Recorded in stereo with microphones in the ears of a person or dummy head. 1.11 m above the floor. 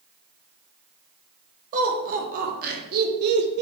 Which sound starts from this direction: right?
Laughter, at 1.7 s.